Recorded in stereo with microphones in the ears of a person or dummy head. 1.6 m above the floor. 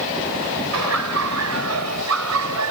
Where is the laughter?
85° right; by 2.7 s 80° right.